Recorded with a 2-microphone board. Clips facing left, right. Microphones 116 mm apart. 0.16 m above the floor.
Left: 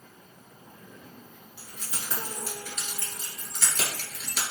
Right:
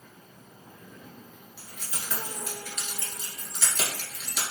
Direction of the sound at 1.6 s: 20° left (ahead or behind).